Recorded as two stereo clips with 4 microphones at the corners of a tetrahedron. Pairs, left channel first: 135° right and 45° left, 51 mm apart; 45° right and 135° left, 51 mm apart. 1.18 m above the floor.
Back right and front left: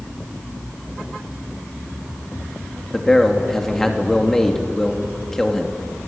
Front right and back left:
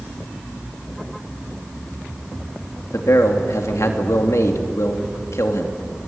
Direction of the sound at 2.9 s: 55° right.